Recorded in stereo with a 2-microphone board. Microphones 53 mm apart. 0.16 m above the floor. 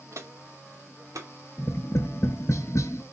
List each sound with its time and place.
0.1 s footsteps: 65° right (ahead or behind), 0.7 m; by 1.3 s 85° right, 1.5 m
1.6 s tapping: 70° left (ahead or behind), 0.7 m